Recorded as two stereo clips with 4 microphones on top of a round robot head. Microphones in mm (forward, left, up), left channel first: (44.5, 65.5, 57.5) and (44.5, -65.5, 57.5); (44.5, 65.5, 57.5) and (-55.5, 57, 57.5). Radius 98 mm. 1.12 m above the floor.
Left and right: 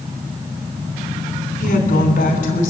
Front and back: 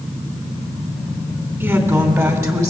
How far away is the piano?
I don't hear a piano.